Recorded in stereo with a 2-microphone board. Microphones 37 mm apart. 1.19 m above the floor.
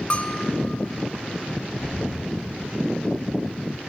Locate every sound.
0.1 s a bell: 30° left (ahead or behind), 0.5 m
1.8 s knocking: 55° left (ahead or behind), 5 m